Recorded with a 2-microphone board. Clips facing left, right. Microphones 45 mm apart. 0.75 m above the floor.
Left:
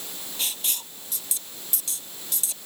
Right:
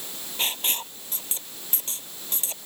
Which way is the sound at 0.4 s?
35° right (ahead or behind).